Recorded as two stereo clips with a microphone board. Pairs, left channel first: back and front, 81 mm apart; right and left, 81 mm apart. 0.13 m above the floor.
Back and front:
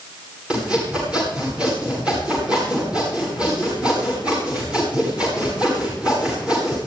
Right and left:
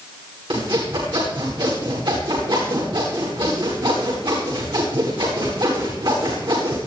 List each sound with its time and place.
0.5 s sawing: 80° left, 10 m